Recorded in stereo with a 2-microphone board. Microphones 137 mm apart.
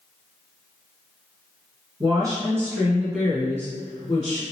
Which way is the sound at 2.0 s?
35° right (ahead or behind).